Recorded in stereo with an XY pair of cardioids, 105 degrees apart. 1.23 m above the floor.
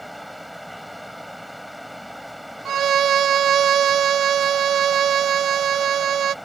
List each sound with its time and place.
0.0 s a fan: 5° right
2.6 s a violin: 60° right